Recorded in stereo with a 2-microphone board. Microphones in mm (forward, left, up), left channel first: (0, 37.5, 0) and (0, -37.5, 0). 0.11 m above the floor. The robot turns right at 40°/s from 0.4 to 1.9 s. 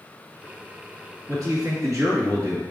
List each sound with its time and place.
1.3 s a man speaking: 50° right (ahead or behind), 2 m; by 2.6 s 45° right (ahead or behind), 2 m